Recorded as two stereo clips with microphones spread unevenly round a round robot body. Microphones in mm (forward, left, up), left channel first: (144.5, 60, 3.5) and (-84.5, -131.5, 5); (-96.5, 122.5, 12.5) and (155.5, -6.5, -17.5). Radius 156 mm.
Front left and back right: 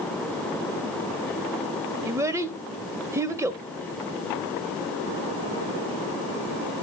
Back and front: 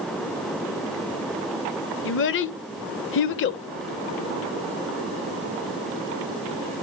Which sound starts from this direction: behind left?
A child speaking, at 2.0 s.